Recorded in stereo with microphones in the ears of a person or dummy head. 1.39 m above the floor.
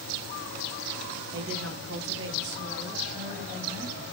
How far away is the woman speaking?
About 1.1 m.